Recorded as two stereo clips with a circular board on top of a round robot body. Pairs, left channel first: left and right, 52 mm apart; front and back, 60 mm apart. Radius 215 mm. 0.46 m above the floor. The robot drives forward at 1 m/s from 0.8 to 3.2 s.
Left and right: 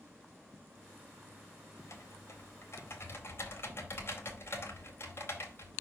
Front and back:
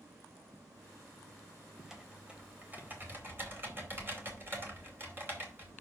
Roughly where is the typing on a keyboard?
Left.